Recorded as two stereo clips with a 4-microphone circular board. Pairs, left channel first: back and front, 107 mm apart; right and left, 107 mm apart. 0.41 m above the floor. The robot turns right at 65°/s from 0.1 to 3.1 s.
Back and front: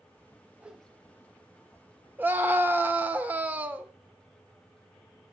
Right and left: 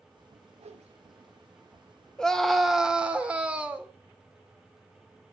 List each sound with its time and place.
0.6 s a whoosh: 75° left, 0.5 m; by 1.3 s 125° left, 0.5 m
2.2 s a scream: 25° right, 0.8 m; by 3.9 s 35° left, 0.8 m